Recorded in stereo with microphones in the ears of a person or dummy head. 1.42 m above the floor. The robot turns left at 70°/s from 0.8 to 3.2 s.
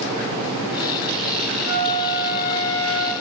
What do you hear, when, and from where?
1.7 s a flute: 85° left, 6 m; by 3.1 s 15° right, 6 m